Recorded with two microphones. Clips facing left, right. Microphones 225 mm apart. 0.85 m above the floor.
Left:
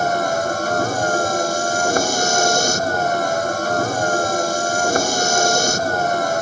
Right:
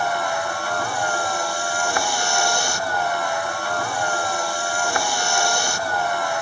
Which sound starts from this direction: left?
A vehicle, at 0.0 s.